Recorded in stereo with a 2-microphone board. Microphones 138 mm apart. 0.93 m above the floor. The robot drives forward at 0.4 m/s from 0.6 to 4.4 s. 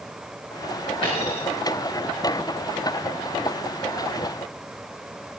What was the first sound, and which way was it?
A dropped coin, 40° left (ahead or behind).